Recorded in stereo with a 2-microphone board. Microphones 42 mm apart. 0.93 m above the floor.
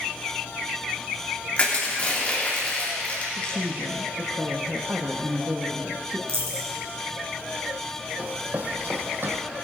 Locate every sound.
1.6 s crushing: 30° left (ahead or behind), 2.5 m
3.4 s a woman speaking: 55° right (ahead or behind), 1.1 m
6.3 s a dropped coin: 70° right (ahead or behind), 3 m
8.2 s running footsteps: 35° right (ahead or behind), 1.9 m; by 9.4 s 60° right (ahead or behind), 1.9 m